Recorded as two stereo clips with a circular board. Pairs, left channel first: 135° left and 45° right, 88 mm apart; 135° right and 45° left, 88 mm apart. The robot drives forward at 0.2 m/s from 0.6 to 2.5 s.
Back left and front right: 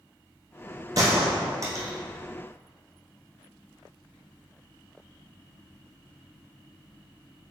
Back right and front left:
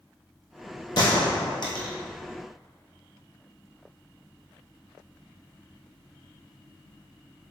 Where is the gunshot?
95° right, 2 m; by 1.9 s 100° right, 2 m.